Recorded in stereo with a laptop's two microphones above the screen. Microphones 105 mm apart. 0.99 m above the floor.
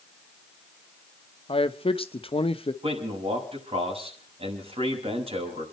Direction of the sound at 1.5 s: 60° left (ahead or behind).